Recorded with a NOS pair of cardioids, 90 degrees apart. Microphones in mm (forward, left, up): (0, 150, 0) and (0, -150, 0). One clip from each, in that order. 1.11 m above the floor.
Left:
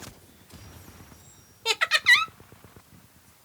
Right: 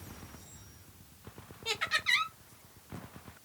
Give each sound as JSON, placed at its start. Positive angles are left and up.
{"t": 1.6, "sound": "laughter", "azimuth_deg": 50, "distance_m": 0.8}